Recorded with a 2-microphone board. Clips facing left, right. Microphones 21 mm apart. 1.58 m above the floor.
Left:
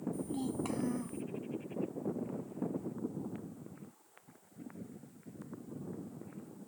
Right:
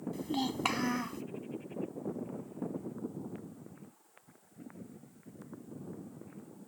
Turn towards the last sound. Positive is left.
turn(degrees=-55)  # may be behind; listen again after turning